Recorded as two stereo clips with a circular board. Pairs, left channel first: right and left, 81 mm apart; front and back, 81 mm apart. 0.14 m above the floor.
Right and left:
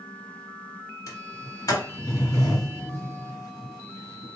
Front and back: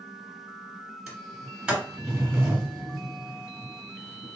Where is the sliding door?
100° right, 1.8 m.